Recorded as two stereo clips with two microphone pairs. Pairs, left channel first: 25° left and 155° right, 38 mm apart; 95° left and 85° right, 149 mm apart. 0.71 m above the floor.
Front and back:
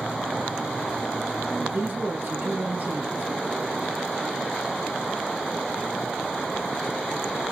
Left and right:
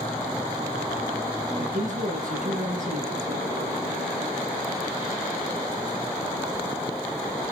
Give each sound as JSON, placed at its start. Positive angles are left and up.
{"t": 1.6, "sound": "a man speaking", "azimuth_deg": -115, "distance_m": 8.5}